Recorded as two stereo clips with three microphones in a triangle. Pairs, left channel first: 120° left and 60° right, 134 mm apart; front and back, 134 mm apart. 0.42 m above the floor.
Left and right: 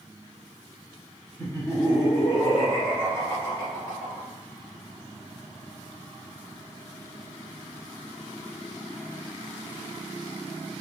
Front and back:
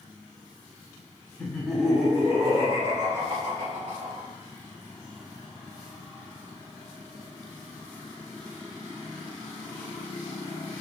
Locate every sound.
1.4 s laughter: 70° left, 0.9 m; by 4.3 s 165° right, 1.5 m